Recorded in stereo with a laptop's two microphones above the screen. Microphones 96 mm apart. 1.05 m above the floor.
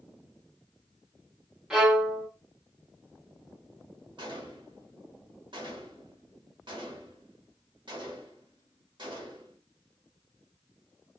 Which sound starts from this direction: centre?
A violin, at 1.7 s.